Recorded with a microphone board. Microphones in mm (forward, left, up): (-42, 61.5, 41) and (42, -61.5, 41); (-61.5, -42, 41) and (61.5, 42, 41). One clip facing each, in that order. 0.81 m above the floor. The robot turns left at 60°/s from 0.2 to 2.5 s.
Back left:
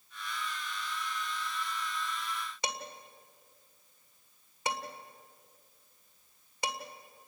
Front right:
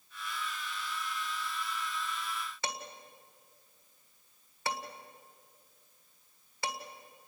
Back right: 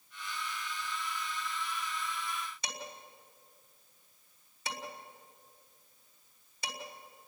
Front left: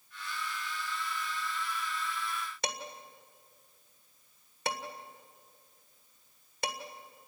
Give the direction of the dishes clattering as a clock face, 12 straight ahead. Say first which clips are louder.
Back left 1 dB, front left 5 dB; 10 o'clock.